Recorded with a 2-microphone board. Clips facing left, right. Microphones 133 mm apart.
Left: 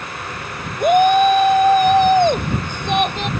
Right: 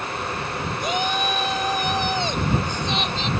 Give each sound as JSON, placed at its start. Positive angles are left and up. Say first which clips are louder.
{"t": 0.8, "sound": "a shout", "louder": "left 14 dB", "side_deg": 55}